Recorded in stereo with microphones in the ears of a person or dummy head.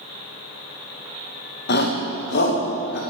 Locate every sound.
1.7 s a shout: 60° left (ahead or behind), 1.8 m